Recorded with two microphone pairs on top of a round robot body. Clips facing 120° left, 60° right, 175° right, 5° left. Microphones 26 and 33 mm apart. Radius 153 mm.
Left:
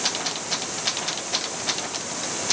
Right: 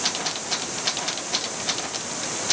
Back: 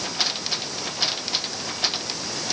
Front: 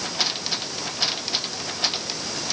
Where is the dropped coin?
No dropped coin in this recording.